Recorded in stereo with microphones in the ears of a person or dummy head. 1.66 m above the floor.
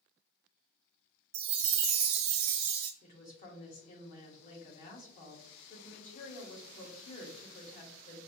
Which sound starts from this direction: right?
A chime, at 1.3 s.